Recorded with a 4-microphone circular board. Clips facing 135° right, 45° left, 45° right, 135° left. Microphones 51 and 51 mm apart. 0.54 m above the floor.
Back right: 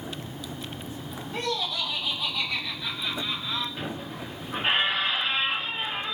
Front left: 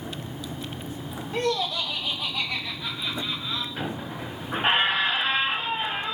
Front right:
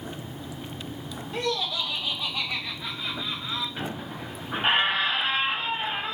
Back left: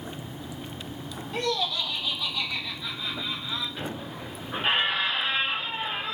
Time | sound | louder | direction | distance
1.3 | laughter | front left 4 dB, even | 40° left | 1.1 m
3.8 | a squeak | front left 2 dB, front right 1 dB | 15° left | 0.8 m